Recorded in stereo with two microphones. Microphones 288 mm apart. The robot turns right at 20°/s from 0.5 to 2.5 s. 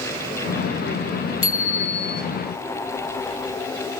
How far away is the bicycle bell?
About 4 m.